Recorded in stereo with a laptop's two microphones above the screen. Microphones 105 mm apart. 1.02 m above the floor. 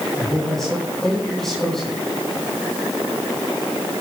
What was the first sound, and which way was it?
A man speaking, centre (ahead or behind).